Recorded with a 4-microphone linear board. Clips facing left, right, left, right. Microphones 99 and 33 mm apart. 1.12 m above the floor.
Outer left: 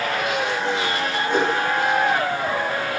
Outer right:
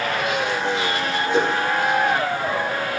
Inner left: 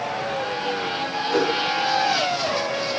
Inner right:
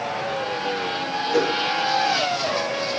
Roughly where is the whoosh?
Left.